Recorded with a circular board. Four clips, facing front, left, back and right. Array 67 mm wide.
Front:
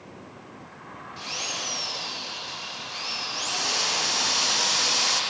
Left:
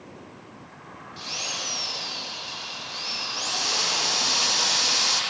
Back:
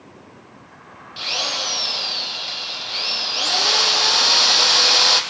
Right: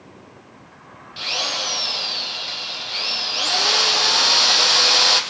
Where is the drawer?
I don't hear a drawer.